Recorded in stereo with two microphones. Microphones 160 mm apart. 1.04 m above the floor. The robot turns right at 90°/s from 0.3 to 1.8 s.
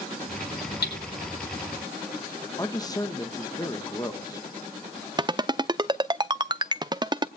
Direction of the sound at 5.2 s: 25° right (ahead or behind).